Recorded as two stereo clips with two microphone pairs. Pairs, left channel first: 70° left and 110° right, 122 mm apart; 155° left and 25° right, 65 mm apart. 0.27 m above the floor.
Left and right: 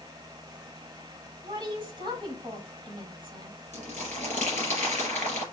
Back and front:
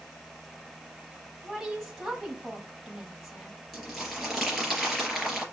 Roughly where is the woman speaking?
Right.